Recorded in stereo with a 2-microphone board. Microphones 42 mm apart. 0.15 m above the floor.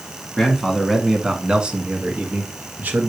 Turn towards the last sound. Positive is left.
turn(degrees=-45)  # may be behind; listen again after turning